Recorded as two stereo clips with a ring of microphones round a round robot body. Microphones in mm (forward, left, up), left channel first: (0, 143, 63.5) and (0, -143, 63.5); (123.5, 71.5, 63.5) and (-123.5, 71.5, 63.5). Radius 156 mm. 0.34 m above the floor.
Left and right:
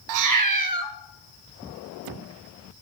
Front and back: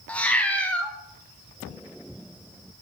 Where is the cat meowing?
85° right, 0.7 m.